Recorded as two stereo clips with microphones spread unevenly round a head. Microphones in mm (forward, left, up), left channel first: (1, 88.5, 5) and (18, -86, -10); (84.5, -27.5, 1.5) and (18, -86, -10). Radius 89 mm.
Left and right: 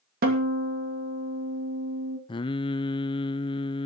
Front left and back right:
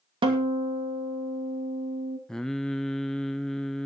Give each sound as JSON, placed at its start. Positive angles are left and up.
{"t": 0.2, "sound": "a guitar", "azimuth_deg": -125, "distance_m": 2.5}
{"t": 2.3, "sound": "singing", "azimuth_deg": 105, "distance_m": 0.5}